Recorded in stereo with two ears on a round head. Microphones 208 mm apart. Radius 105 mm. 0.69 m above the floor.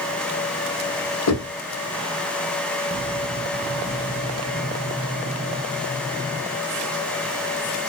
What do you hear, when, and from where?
1.3 s knocking: 75° left (ahead or behind), 1.5 m